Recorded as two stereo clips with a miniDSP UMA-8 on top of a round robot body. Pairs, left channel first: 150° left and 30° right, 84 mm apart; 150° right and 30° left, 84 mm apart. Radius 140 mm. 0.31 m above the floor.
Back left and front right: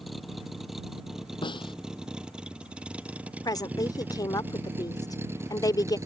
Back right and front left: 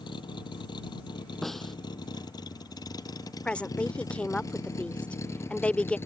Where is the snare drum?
120° left.